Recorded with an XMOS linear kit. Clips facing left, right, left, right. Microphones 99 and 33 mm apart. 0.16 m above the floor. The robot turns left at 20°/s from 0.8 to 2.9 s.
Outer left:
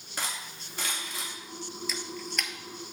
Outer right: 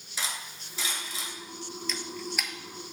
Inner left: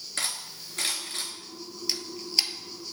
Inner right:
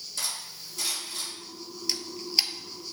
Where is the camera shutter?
5° left (ahead or behind), 0.7 m; by 2.9 s 15° right (ahead or behind), 0.7 m.